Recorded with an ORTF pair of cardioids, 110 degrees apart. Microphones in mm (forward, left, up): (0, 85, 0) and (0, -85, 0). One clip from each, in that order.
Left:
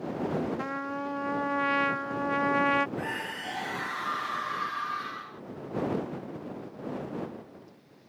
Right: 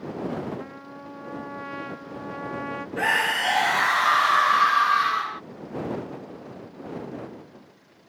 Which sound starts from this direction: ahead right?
A scream, at 3.0 s.